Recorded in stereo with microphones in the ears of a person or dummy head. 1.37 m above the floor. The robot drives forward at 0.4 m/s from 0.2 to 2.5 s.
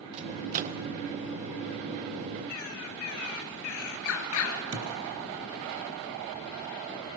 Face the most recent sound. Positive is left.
turn(degrees=-70)  # may be behind; listen again after turning